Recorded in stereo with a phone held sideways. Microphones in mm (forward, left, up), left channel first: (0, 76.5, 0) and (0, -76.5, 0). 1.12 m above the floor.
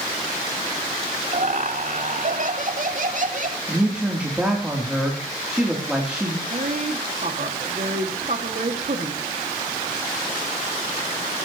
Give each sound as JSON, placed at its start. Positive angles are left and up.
{"t": 1.3, "sound": "laughter", "side_deg": -60, "distance_m": 2.5}
{"t": 3.7, "sound": "a man speaking", "side_deg": -5, "distance_m": 3.0}
{"t": 6.5, "sound": "a woman speaking", "side_deg": -60, "distance_m": 1.9}